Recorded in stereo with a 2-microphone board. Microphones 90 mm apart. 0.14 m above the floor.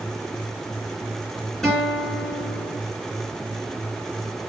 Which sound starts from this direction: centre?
A guitar, at 1.6 s.